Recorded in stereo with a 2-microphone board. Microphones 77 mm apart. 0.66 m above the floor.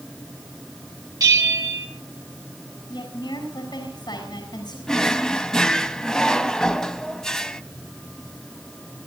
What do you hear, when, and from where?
1.2 s a bell: 55° right (ahead or behind), 4 m
2.9 s a woman speaking: 60° left (ahead or behind), 6 m
4.9 s a drawer: 10° left (ahead or behind), 1.0 m